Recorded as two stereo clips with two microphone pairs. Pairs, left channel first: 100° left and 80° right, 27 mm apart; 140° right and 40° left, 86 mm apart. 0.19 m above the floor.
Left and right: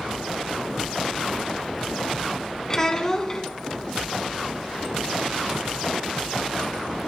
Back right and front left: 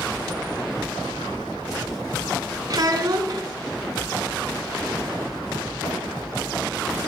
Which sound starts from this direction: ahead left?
A child speaking, at 2.7 s.